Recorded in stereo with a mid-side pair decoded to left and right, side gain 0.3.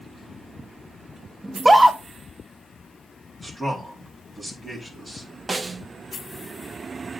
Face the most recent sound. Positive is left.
turn(degrees=-45)